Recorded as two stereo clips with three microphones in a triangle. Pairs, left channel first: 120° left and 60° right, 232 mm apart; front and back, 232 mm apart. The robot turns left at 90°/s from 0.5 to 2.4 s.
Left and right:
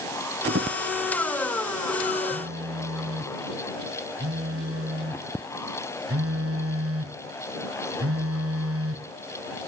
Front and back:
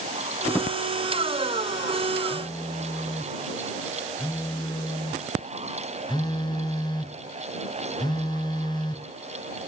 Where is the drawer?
75° right; by 0.8 s 100° right.